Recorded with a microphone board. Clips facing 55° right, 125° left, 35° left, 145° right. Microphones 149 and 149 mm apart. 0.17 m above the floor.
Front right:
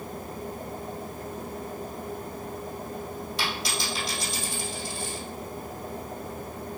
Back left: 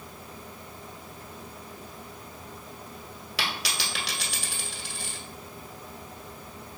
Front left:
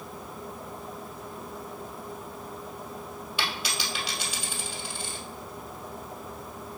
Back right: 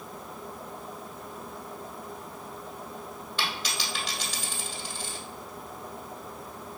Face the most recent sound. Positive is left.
turn(degrees=115)